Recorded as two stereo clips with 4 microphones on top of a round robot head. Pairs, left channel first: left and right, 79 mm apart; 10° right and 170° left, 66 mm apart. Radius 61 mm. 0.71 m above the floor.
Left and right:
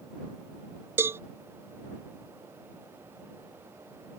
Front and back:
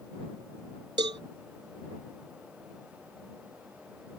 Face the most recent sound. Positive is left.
turn(degrees=-150)